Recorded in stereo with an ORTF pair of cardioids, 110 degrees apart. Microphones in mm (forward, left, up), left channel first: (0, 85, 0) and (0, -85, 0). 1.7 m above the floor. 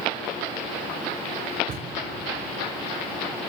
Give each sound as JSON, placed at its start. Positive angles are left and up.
{"t": 1.7, "sound": "a thud", "azimuth_deg": -70, "distance_m": 7.0}